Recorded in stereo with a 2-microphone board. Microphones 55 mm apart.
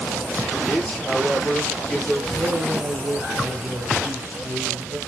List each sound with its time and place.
0.7 s a man speaking: 15° left (ahead or behind), 4.5 m
2.4 s a man speaking: 40° right (ahead or behind), 2.5 m